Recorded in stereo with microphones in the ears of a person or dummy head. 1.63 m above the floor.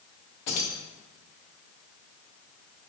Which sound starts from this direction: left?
Keys jangling, at 0.5 s.